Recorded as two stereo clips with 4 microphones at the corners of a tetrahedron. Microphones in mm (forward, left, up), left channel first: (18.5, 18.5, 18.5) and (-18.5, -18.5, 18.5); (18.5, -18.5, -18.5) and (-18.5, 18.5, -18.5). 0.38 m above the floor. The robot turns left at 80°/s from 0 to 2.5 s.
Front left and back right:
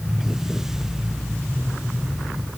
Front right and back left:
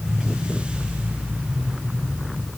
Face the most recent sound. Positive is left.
No sound to turn to.